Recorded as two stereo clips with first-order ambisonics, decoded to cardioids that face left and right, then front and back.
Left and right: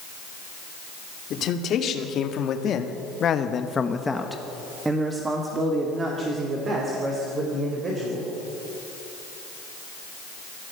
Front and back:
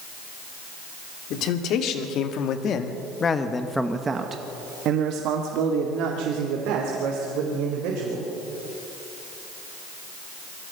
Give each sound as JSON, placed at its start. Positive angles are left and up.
{"t": 1.3, "sound": "a man speaking", "azimuth_deg": 40, "distance_m": 3.0}